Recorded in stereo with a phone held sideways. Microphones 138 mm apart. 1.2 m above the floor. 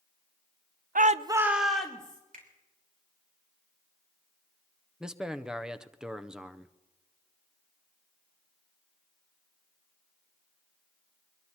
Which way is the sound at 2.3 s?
80° right.